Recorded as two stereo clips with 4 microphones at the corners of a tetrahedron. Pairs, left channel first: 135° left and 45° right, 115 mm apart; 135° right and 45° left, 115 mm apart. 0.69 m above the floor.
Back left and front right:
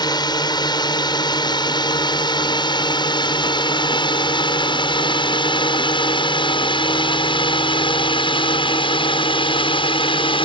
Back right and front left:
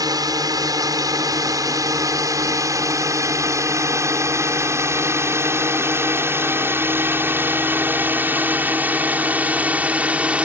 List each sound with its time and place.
0.0 s a drone: 95° left; by 10.5 s 120° left